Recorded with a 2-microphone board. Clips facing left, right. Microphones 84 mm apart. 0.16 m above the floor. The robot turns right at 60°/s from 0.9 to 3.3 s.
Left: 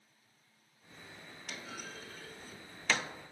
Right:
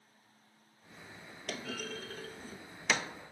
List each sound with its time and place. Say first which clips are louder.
1.5 s a clunk: right 6 dB; 80° right, 0.5 m; by 3.1 s 5° right (ahead or behind), 0.5 m